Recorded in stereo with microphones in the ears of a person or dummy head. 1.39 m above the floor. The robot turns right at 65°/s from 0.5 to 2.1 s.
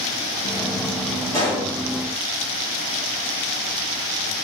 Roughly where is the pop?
Left.